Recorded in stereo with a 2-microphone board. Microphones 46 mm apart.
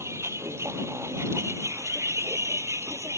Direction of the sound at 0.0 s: 90° right.